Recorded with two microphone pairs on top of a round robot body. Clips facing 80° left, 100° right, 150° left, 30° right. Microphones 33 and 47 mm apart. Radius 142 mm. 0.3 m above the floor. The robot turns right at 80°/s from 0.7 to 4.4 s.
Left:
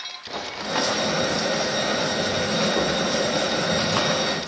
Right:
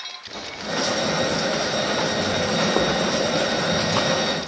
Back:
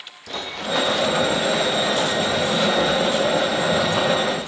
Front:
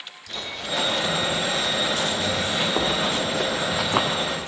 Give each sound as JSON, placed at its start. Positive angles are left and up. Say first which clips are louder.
{"t": 0.3, "sound": "running footsteps", "louder": "left 2 dB, back 5 dB", "azimuth_deg": 120, "distance_m": 4.5}